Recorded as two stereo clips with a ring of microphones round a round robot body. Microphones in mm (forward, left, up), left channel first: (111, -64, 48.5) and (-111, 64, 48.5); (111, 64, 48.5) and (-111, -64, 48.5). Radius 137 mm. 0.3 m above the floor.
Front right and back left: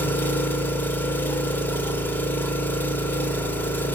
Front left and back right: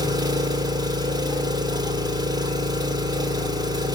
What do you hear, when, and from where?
0.0 s an engine running: 100° right, 1.1 m